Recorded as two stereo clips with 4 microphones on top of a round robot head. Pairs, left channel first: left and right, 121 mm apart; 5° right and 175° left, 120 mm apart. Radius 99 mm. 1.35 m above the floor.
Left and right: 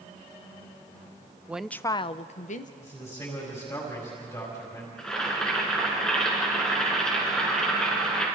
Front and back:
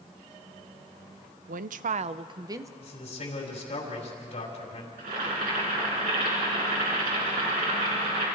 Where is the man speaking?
20° left, 6 m.